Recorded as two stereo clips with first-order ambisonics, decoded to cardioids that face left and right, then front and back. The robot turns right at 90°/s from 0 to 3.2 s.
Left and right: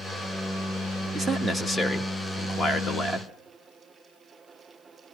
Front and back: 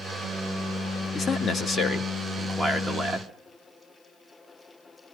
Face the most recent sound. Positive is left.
turn(degrees=145)